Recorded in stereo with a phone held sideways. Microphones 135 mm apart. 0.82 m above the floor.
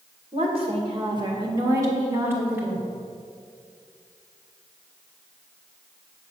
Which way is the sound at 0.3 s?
50° right (ahead or behind).